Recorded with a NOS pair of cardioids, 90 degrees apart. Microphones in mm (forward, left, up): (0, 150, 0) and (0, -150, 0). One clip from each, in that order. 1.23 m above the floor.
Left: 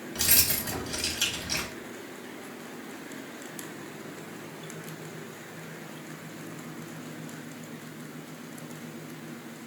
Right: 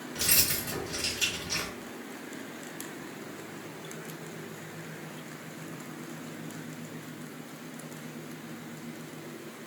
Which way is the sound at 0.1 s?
35° left.